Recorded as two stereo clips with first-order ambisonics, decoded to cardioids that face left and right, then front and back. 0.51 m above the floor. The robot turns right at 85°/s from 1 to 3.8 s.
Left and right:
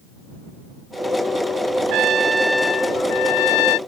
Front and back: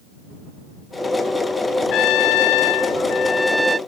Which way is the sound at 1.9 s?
55° right.